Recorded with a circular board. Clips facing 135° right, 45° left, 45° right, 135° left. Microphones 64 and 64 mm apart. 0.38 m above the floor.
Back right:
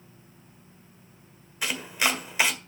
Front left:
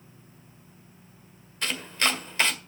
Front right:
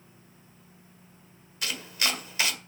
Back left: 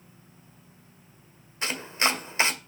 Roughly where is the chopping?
Behind left.